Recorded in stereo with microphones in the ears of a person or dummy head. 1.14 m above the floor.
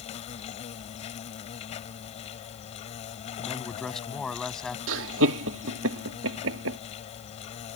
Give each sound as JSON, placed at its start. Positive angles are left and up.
{"t": 0.0, "sound": "an insect", "side_deg": 35}
{"t": 3.4, "sound": "a man speaking", "side_deg": 5}
{"t": 4.9, "sound": "laughter", "side_deg": -80}